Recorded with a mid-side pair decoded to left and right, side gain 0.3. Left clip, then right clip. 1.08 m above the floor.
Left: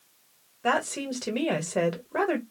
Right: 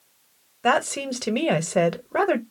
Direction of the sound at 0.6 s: 55° right.